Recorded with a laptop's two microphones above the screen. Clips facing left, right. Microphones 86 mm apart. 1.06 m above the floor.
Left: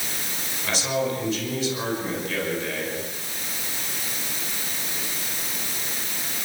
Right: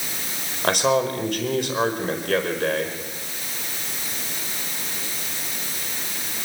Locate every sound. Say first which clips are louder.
0.6 s a man speaking: right 6 dB; 60° right (ahead or behind), 5 m